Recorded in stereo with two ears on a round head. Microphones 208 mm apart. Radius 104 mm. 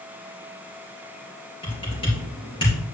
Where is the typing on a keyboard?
25° left (ahead or behind), 3.5 m.